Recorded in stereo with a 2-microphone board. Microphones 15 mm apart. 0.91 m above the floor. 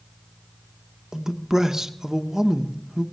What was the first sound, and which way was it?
A man speaking, 35° right (ahead or behind).